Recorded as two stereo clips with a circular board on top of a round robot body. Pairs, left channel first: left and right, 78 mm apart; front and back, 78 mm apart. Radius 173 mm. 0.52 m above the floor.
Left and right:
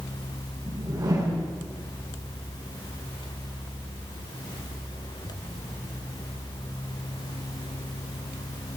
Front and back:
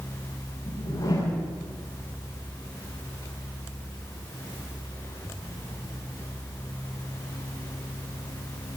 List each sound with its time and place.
0.7 s a whoosh: 45° right, 6 m